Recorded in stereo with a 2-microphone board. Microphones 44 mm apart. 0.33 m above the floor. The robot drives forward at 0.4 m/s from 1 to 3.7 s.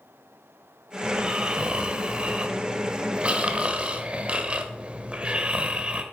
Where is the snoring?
25° right (ahead or behind), 1.8 m.